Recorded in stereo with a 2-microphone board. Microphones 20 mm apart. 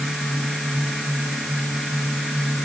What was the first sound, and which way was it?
Only background noise.